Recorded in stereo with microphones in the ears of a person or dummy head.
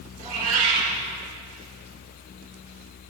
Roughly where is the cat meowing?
Right.